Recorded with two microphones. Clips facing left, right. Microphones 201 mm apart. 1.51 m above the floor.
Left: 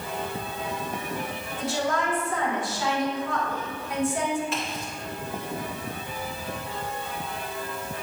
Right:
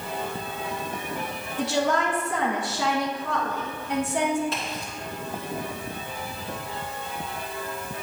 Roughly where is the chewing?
I don't hear chewing.